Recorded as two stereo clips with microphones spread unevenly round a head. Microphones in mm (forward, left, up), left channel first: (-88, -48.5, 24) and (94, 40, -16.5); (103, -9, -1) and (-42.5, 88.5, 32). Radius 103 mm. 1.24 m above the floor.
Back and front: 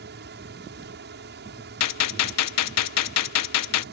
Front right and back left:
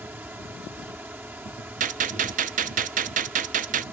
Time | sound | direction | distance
0.0 | a fan | 65° left | ?
1.8 | a gunshot | 160° right | ?